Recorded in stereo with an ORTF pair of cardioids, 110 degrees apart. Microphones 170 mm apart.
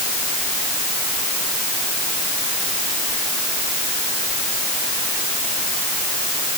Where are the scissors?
I don't hear scissors.